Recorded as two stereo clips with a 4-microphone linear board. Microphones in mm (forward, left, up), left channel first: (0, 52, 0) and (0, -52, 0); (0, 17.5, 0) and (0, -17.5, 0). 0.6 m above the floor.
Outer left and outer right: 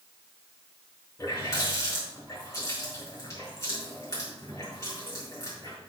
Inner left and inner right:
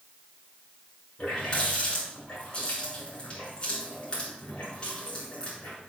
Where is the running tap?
30° left (ahead or behind), 4.5 m.